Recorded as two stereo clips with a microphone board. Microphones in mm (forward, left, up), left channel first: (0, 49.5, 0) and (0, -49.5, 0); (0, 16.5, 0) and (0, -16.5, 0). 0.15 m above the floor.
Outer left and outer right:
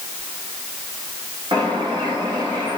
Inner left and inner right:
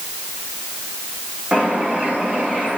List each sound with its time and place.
1.5 s a bird: 50° right (ahead or behind), 8 m